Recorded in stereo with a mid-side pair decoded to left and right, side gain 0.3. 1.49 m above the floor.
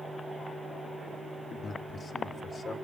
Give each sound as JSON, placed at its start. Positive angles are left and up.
{"t": 1.5, "sound": "a man speaking", "azimuth_deg": 60, "distance_m": 3.5}